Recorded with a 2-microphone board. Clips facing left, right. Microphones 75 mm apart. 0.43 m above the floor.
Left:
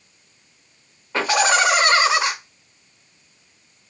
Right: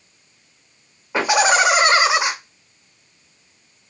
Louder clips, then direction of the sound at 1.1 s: Right 2 dB; 15° right (ahead or behind).